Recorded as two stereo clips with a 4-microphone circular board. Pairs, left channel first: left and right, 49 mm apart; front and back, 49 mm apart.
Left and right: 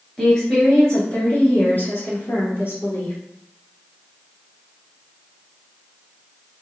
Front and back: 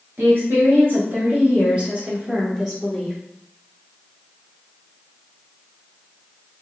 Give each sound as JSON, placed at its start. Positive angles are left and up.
{"t": 0.2, "sound": "a woman speaking", "azimuth_deg": 170, "distance_m": 1.7}